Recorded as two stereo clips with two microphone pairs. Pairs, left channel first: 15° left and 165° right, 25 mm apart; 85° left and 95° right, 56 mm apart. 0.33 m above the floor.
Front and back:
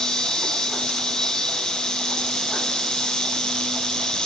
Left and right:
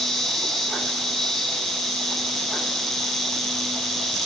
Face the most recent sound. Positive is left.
turn(degrees=5)